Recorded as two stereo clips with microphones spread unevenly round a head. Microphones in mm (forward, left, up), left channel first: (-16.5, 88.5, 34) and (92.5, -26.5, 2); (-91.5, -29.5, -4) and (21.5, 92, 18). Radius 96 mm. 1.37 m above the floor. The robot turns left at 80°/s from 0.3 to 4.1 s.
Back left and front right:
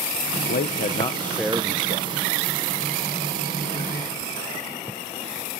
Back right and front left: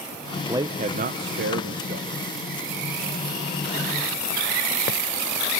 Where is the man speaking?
120° left, 0.6 m; by 2.1 s 10° right, 0.6 m.